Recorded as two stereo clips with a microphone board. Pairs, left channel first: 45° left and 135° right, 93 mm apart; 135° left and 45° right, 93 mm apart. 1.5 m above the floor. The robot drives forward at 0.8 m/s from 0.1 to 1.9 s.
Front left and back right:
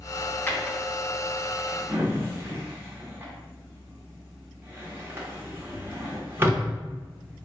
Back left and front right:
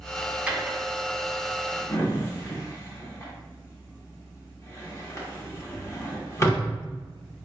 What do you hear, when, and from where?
0.5 s a drawer: 10° left, 0.9 m; by 6.7 s 175° left, 1.1 m